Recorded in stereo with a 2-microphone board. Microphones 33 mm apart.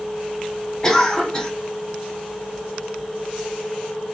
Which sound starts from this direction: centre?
A cough, at 0.8 s.